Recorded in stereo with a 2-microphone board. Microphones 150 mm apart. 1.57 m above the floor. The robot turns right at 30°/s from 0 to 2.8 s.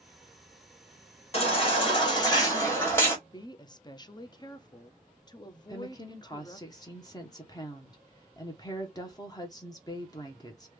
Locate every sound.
1.3 s a baby crying: 115° left, 1.4 m; by 3.2 s 160° left, 1.4 m
3.3 s a woman speaking: 30° left (ahead or behind), 0.5 m
5.7 s a woman speaking: 25° left (ahead or behind), 0.8 m